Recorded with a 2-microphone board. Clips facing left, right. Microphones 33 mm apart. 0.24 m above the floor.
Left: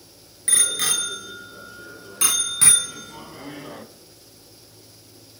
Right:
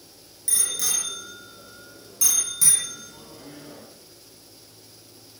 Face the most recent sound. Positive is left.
turn(degrees=45)  # may be behind; listen again after turning